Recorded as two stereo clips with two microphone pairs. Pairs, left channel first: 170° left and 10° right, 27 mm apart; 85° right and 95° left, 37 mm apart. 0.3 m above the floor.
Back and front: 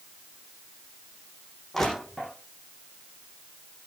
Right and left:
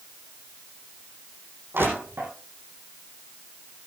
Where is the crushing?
90° left, 9.5 m.